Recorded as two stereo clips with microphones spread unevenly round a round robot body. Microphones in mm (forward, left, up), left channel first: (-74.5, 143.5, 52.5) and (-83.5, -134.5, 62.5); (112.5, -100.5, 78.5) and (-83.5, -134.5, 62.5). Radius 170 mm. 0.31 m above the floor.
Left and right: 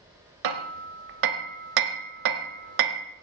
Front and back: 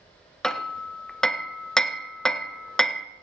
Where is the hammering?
80° right, 1.4 m.